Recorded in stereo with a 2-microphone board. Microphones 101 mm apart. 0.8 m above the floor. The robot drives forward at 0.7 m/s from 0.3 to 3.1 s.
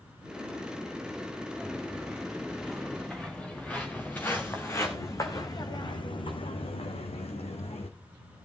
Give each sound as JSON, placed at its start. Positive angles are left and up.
{"t": 1.6, "sound": "footsteps", "side_deg": -5, "distance_m": 4.5}